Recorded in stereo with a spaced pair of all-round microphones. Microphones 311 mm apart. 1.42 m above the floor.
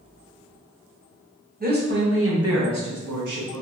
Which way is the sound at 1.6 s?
30° right (ahead or behind).